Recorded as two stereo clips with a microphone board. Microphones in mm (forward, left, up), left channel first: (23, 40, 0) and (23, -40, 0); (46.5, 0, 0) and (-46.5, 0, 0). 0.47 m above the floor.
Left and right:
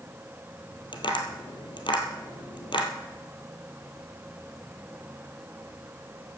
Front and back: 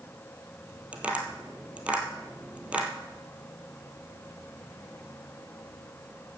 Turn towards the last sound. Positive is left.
turn(degrees=105)